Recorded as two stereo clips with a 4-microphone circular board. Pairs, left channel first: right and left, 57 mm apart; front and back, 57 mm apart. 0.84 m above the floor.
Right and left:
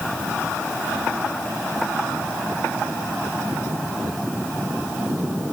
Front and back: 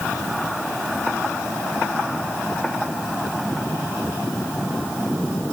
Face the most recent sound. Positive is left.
No sound to turn to.